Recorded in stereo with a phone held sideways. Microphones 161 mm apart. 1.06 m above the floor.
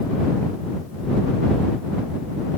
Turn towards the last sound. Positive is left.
No sound to turn to.